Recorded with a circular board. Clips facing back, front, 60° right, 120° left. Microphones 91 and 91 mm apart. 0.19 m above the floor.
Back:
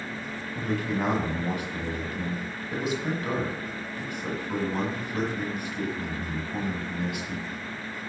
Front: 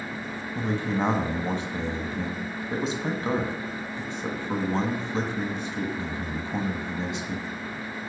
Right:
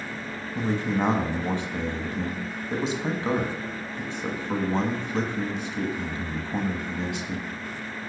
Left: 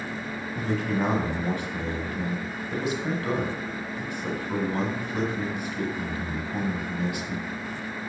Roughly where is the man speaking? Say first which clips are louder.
Front 2 dB, right 2 dB; ahead right.